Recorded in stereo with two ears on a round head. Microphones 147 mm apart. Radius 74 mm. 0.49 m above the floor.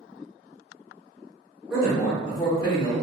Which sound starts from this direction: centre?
A man speaking, at 1.7 s.